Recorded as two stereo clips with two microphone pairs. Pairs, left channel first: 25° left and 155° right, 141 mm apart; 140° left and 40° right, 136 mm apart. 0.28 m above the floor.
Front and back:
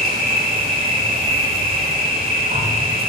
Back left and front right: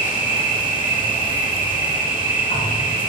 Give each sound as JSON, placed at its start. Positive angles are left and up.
{"t": 0.0, "sound": "an insect", "azimuth_deg": -170, "distance_m": 7.0}